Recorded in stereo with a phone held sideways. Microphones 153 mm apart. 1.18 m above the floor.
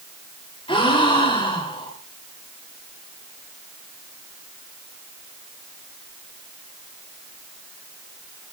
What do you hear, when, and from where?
0.7 s a gasp: 35° left (ahead or behind), 4 m